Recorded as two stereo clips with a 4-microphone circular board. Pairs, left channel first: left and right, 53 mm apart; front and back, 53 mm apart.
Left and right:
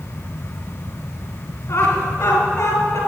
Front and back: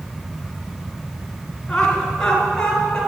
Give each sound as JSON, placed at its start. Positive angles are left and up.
{"t": 1.7, "sound": "laughter", "azimuth_deg": 80, "distance_m": 4.0}